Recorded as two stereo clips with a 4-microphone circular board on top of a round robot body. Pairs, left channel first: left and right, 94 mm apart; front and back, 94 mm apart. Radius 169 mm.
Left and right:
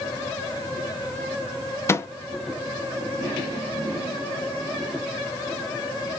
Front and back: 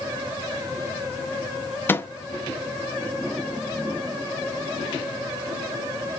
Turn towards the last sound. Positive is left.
turn(degrees=50)